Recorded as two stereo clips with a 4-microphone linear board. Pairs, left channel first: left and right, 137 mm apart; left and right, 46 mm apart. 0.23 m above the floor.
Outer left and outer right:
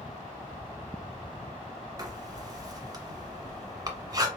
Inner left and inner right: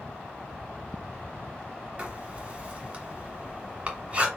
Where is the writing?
30° right (ahead or behind), 1.1 m.